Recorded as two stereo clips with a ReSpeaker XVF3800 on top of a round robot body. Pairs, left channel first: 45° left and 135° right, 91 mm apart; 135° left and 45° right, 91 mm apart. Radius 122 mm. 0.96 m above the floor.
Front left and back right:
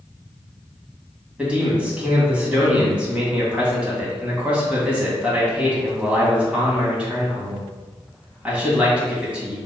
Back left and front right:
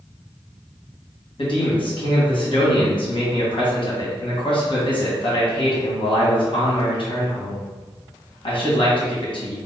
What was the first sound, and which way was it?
A man speaking, 150° left.